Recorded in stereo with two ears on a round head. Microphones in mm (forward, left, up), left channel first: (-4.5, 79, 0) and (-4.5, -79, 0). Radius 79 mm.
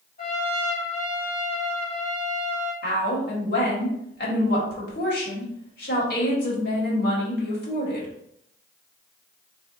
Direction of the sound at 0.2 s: 50° left (ahead or behind).